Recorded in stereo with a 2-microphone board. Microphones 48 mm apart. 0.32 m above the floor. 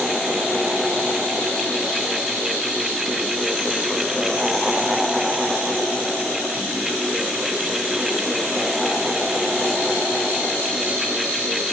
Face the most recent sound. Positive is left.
No sound to turn to.